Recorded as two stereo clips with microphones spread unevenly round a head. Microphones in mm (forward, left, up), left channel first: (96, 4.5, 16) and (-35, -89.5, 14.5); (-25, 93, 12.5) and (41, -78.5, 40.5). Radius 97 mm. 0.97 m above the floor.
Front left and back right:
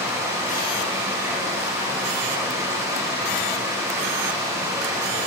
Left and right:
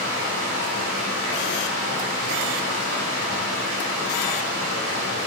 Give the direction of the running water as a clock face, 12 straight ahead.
2 o'clock.